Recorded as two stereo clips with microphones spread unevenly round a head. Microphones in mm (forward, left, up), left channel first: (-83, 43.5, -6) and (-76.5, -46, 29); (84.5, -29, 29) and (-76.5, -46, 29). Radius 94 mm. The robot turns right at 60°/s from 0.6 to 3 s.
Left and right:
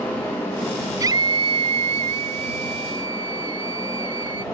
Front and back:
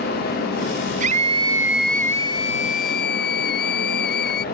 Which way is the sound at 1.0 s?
135° right.